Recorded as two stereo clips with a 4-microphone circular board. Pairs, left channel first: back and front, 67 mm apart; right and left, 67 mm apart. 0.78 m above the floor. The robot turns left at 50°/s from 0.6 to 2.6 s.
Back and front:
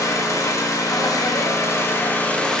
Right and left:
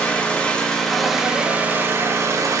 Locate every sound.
0.0 s an engine running: 160° right, 0.9 m; by 2.6 s 100° left, 0.9 m